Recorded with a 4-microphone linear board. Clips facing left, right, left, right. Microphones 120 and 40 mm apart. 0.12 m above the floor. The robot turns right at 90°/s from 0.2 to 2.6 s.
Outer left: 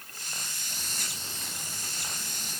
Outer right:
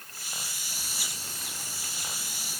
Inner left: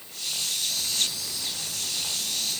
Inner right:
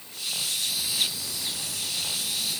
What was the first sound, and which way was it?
Only background noise.